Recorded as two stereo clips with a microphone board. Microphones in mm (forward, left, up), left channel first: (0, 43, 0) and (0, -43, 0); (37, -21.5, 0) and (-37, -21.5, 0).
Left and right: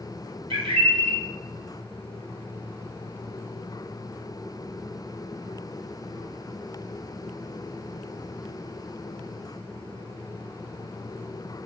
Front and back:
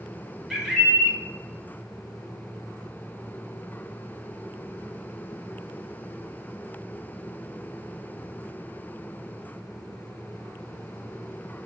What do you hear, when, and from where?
0.5 s a bird: 95° right, 0.5 m